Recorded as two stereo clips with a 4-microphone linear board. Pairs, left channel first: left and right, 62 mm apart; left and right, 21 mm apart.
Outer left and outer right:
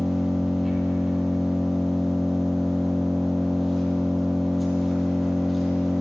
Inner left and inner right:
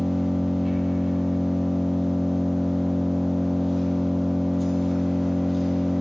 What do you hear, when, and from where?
0.0 s an engine running: centre (ahead or behind), 3.5 m